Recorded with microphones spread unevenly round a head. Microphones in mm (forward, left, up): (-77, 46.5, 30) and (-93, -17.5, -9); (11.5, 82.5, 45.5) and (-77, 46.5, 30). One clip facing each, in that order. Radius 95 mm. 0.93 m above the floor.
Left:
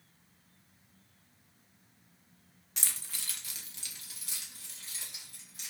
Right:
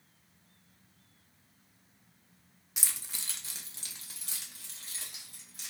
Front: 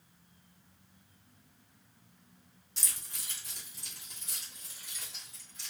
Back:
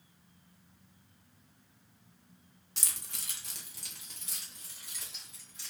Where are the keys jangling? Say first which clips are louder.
Even, back 1 dB; 175° right, 0.7 m; by 5.7 s 110° right, 1.7 m.